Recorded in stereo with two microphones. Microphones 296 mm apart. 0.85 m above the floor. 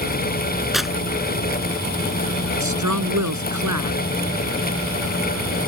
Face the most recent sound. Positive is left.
turn(degrees=-75)  # may be behind; listen again after turning